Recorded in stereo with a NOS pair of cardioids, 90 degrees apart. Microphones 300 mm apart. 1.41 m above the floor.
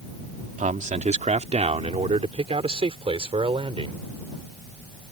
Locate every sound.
0.6 s a man speaking: 25° right; by 4.0 s 15° right